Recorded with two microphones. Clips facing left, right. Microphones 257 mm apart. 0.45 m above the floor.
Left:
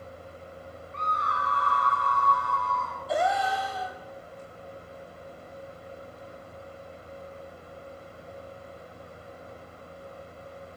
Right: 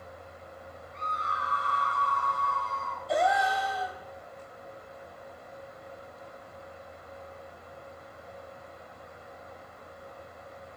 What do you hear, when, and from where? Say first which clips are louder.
0.9 s a scream: left 5 dB; 75° left (ahead or behind), 4 m
3.1 s a gasp: even; centre (ahead or behind), 3 m